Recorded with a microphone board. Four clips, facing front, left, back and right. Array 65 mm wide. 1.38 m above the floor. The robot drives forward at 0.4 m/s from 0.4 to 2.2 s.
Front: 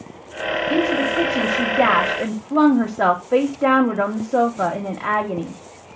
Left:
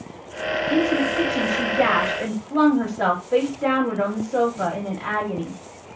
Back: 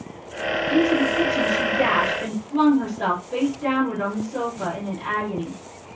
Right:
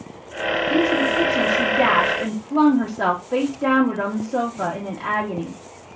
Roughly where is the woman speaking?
Ahead.